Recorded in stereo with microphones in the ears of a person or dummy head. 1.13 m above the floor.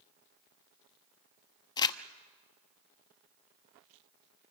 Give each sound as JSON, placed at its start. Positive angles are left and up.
{"t": 1.8, "sound": "crumpling", "side_deg": 25, "distance_m": 0.8}